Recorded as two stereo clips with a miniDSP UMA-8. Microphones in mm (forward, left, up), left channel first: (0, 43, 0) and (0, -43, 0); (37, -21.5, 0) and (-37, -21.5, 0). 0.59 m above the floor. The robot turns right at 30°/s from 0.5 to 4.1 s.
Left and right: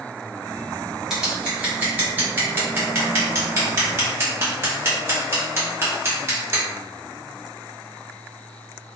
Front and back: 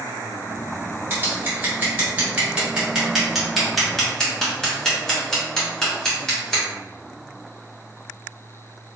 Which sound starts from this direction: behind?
Scissors, at 1.1 s.